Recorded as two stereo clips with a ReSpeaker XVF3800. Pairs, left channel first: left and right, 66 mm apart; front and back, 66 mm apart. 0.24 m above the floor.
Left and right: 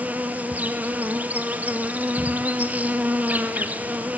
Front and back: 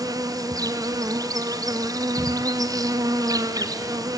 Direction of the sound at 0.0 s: 155° right.